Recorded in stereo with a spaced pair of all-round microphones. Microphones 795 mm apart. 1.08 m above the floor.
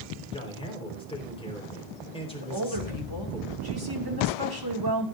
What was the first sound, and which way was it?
A man speaking, 5° left (ahead or behind).